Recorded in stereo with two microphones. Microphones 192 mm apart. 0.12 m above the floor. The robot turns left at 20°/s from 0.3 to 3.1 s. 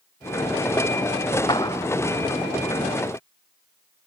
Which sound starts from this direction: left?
A clap, at 1.5 s.